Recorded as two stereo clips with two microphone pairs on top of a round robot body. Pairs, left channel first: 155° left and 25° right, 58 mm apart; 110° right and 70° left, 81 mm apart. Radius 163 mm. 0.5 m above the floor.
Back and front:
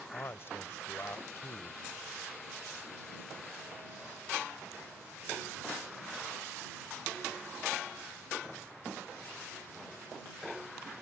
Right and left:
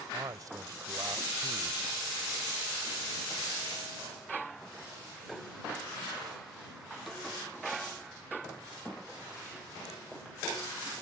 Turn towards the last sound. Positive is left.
turn(degrees=110)